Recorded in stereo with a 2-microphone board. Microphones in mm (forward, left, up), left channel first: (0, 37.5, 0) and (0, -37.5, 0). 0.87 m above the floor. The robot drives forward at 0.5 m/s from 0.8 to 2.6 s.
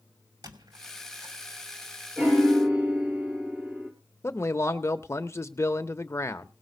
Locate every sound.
0.4 s a squeak: 70° right (ahead or behind), 2.5 m; by 1.4 s 75° right (ahead or behind), 2.5 m
2.2 s a piano: 25° right (ahead or behind), 4 m
4.2 s a man speaking: 40° left (ahead or behind), 0.7 m